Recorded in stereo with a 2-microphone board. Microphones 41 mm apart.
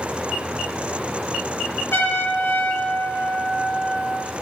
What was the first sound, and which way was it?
A trumpet, 70° left (ahead or behind).